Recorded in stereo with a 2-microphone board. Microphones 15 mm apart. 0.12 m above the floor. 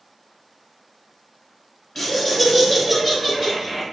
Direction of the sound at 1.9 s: 10° left (ahead or behind).